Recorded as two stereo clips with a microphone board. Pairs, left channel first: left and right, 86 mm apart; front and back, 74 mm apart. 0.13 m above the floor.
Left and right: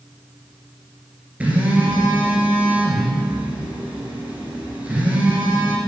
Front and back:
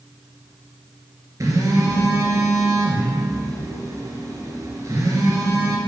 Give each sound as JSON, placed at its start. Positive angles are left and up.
{"t": 1.4, "sound": "a phone buzzing", "azimuth_deg": -160, "distance_m": 2.5}